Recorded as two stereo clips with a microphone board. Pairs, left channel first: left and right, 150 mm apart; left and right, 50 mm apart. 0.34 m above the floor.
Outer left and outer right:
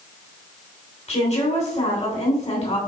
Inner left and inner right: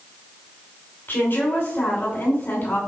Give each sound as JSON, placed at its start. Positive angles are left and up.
{"t": 1.1, "sound": "a woman speaking", "side_deg": 50, "distance_m": 2.5}